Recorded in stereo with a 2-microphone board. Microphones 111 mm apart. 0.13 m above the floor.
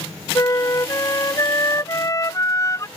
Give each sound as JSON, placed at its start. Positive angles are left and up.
{"t": 0.3, "sound": "a flute", "side_deg": 30}